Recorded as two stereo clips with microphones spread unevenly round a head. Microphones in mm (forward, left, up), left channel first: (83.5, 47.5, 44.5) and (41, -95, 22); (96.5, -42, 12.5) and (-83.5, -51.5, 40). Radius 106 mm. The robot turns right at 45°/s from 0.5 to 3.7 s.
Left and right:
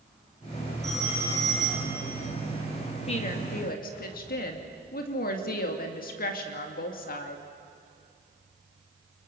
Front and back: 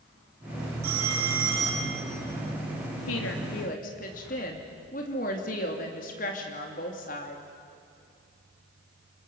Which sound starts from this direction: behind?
A phone ringing, at 0.8 s.